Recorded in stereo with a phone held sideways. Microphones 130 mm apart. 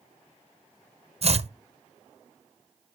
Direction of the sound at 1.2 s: 55° right (ahead or behind).